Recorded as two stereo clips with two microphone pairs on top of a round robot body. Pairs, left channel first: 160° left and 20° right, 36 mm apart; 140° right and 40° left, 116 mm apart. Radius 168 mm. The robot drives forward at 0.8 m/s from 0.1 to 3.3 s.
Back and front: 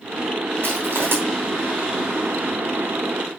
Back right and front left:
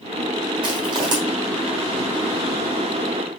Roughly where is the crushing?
Ahead.